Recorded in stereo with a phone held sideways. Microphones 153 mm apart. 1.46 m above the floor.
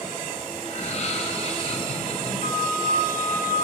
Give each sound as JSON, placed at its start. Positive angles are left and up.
{"t": 0.7, "sound": "laughter", "side_deg": 50, "distance_m": 4.5}
{"t": 2.4, "sound": "a flute", "side_deg": -80, "distance_m": 8.0}